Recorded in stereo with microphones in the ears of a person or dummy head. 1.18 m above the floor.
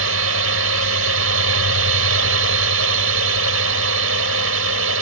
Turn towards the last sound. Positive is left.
turn(degrees=-75)  # may be behind; listen again after turning